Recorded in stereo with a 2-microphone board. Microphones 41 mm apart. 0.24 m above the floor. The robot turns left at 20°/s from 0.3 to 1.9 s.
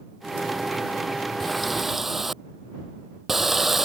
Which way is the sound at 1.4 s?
5° left (ahead or behind).